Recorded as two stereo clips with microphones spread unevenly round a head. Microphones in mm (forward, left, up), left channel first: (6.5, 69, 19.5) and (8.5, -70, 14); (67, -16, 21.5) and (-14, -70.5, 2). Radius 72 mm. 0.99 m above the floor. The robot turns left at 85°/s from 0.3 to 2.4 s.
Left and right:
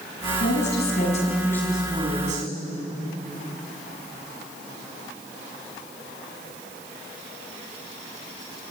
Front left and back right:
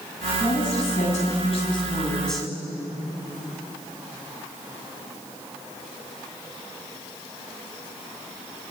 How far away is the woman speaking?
About 7 m.